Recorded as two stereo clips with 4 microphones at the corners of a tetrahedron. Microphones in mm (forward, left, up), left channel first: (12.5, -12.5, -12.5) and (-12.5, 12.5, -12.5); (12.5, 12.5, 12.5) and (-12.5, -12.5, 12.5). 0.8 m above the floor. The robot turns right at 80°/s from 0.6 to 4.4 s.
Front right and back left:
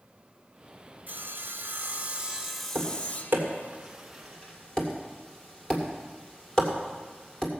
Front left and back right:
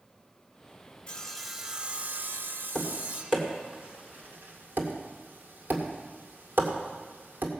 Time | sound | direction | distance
1.1 | sawing | 105° left | 0.8 m
2.8 | tapping | 115° left | 2 m